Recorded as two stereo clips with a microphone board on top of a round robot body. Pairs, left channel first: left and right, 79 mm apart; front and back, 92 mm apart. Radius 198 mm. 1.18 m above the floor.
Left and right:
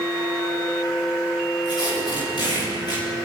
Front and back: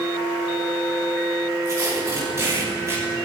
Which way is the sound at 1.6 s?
120° left.